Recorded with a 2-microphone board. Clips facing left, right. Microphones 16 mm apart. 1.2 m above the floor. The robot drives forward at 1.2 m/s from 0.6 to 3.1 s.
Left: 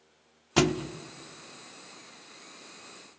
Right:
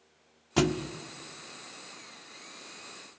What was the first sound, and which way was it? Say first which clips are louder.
A thud: left 2 dB; 25° left (ahead or behind).